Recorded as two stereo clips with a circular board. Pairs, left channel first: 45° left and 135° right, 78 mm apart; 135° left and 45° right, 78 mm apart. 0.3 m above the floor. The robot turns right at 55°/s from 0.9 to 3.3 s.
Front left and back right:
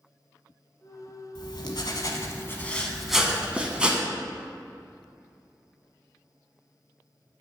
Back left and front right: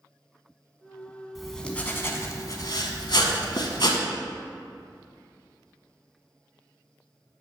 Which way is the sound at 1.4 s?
40° left.